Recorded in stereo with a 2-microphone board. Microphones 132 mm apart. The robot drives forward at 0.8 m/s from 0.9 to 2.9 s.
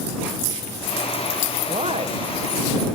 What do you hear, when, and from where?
1.7 s a man speaking: 55° right (ahead or behind), 1.3 m; by 2.9 s 30° right (ahead or behind), 2 m